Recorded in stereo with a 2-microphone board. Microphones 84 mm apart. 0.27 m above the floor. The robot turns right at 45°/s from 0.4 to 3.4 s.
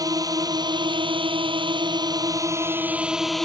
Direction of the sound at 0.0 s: 130° right.